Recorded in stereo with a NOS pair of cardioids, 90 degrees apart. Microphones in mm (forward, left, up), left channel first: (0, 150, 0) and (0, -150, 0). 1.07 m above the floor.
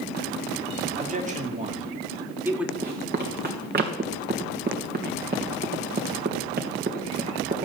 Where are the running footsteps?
35° right, 3.5 m.